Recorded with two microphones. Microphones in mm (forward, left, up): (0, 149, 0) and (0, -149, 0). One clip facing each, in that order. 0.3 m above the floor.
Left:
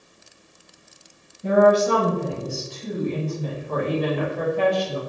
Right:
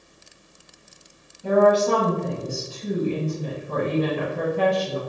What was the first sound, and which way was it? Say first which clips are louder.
A woman speaking: left 1 dB; 25° left (ahead or behind).